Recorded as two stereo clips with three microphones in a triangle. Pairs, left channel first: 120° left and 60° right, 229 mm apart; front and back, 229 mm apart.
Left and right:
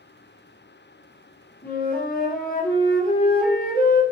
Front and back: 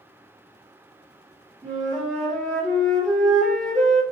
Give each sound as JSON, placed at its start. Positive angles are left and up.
{"t": 1.6, "sound": "a flute", "azimuth_deg": 85, "distance_m": 1.2}